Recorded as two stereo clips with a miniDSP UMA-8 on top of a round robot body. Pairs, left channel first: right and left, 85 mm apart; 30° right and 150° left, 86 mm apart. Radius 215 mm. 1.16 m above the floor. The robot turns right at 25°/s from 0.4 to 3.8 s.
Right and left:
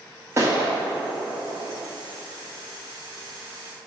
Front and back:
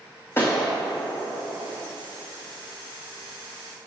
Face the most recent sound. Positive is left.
turn(degrees=120)